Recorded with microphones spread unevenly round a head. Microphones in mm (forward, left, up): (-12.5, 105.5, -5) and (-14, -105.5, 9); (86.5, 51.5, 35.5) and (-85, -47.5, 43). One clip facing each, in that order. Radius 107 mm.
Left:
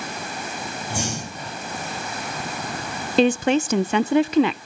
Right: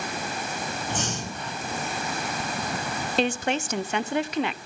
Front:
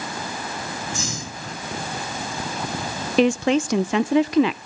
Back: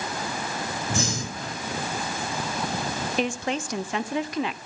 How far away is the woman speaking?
About 0.5 m.